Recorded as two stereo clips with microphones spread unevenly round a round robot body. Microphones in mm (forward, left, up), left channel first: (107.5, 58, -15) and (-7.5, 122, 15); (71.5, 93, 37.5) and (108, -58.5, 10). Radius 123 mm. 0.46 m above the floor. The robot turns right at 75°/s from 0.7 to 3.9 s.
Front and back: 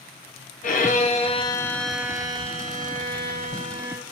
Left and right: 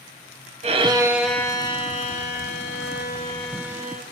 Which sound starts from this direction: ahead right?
A violin, at 0.6 s.